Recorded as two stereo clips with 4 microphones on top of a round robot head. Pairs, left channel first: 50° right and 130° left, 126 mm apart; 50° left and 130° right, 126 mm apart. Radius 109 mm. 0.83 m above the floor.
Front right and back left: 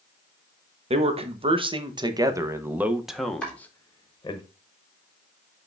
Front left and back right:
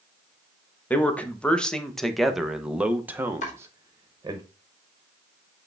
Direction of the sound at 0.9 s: 125° left.